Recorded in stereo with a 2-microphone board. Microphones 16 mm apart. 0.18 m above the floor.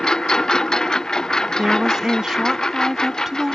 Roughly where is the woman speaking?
Right.